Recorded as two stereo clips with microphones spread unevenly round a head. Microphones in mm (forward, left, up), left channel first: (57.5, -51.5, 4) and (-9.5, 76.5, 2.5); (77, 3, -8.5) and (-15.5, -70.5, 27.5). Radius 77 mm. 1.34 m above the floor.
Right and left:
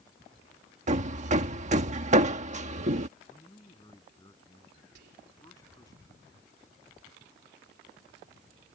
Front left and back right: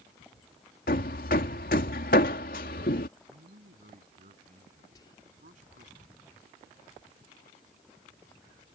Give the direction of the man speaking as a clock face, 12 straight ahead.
4 o'clock.